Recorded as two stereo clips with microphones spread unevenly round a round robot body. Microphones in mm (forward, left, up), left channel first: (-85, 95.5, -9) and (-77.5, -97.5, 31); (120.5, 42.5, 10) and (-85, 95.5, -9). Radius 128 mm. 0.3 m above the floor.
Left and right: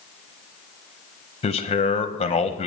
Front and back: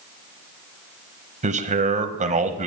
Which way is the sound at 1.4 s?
125° left.